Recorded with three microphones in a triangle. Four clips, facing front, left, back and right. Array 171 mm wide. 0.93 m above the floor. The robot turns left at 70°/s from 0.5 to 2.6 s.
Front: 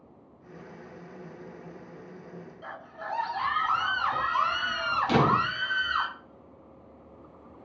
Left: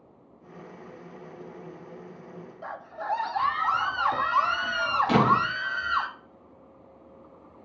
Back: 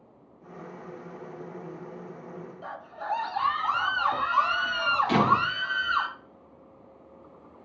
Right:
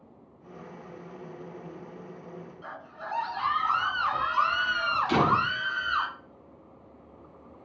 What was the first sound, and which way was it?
A scream, 115° left.